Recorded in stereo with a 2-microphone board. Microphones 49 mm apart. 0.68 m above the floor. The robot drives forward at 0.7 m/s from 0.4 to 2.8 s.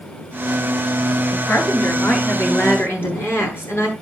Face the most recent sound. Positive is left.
turn(degrees=55)  # may be behind; listen again after turning